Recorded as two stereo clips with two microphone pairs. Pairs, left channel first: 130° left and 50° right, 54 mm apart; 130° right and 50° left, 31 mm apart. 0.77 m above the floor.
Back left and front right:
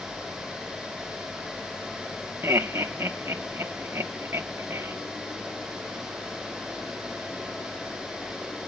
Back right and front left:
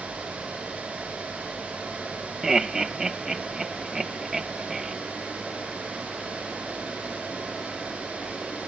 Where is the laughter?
25° right, 0.9 m.